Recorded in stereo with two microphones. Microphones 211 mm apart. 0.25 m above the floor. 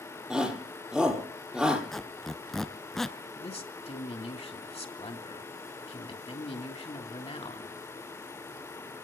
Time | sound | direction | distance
0.3 | a shout | 5° right (ahead or behind) | 6 m
1.9 | a squeak | centre (ahead or behind) | 0.8 m
3.4 | a man speaking | 25° left (ahead or behind) | 2.5 m